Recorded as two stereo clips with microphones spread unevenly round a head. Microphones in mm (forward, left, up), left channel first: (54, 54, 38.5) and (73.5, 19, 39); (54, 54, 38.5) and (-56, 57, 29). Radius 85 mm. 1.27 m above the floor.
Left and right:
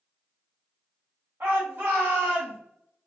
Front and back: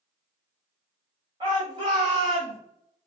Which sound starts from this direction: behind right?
A shout, at 1.4 s.